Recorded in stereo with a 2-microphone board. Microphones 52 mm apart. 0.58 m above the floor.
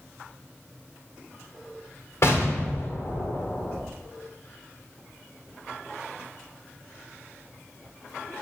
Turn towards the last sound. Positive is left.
turn(degrees=60)  # may be behind; listen again after turning